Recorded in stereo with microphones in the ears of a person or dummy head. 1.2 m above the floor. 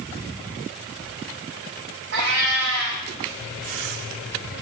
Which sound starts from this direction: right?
A cat meowing, at 2.1 s.